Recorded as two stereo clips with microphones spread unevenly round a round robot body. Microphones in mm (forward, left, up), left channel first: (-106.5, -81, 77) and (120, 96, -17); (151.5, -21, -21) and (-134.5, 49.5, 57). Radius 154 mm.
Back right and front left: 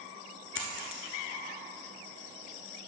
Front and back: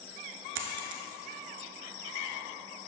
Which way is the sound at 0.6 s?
170° left.